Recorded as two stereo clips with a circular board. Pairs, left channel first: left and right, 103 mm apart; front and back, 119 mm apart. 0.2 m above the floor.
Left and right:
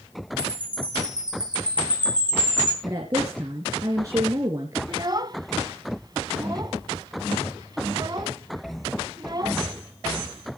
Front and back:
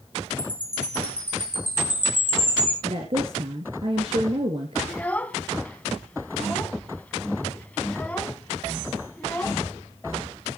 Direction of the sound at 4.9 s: 70° right.